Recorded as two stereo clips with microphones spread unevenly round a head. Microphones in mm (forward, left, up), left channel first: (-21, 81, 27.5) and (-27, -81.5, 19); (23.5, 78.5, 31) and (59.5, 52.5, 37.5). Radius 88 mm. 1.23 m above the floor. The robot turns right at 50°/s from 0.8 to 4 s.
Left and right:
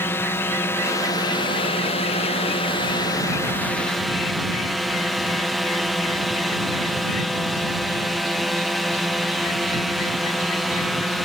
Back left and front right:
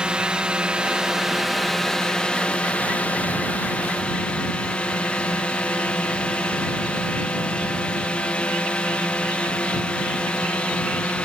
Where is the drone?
20° left; by 11.2 s straight behind.